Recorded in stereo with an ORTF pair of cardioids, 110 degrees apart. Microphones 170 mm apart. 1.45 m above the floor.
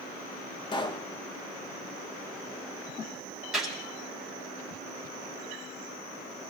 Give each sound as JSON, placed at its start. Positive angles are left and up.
{"t": 0.7, "sound": "a pop", "azimuth_deg": 25, "distance_m": 1.3}
{"t": 3.5, "sound": "a gunshot", "azimuth_deg": -5, "distance_m": 3.5}